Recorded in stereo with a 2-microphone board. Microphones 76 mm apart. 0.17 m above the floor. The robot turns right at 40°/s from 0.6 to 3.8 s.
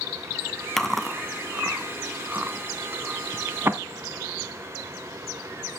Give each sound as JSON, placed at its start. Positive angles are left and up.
{"t": 0.8, "sound": "chewing", "side_deg": 5, "distance_m": 0.7}